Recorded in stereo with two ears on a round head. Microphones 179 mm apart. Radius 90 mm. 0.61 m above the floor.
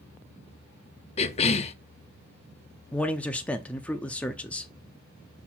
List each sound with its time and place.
1.2 s a cough: 30° left (ahead or behind), 0.7 m
2.9 s a man speaking: 5° left (ahead or behind), 0.6 m